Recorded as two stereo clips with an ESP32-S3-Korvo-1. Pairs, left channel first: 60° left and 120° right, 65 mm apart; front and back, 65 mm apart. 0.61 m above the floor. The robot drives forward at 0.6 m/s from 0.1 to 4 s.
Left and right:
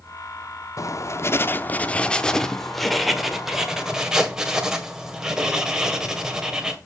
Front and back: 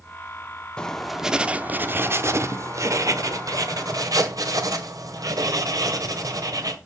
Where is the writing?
75° left, 0.8 m; by 6.8 s 160° left, 1.9 m.